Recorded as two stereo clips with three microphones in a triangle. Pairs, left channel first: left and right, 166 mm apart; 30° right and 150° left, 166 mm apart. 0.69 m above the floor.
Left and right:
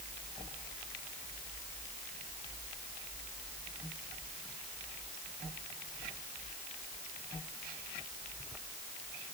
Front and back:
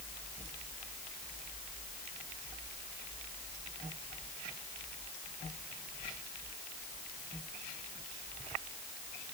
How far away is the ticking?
No ticking in this recording.